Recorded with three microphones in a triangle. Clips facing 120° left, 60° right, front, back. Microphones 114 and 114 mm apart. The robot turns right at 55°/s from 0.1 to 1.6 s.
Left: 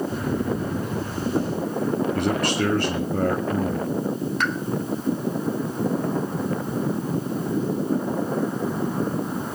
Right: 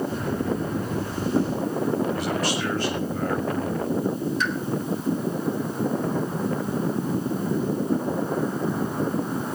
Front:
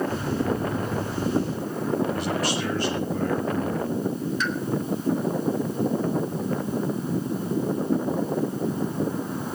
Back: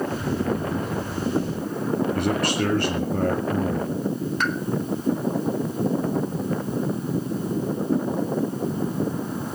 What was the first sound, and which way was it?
A man speaking, 150° left.